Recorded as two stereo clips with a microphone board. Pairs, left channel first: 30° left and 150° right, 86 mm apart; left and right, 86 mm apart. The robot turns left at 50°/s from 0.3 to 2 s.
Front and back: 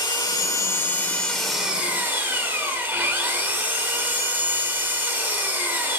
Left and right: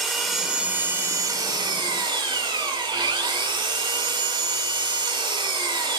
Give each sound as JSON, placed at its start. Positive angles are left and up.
{"t": 0.0, "sound": "an engine running", "azimuth_deg": 0, "distance_m": 2.0}